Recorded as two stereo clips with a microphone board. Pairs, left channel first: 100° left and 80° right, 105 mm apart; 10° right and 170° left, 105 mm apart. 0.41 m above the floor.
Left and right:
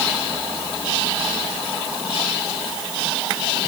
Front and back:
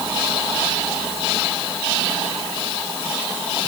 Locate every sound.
Only background noise.